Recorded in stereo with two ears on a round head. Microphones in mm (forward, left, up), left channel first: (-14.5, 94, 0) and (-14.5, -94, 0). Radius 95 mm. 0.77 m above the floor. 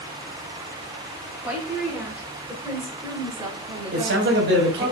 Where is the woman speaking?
10° right (ahead or behind), 3.5 m; by 4.9 s 40° right (ahead or behind), 2.5 m.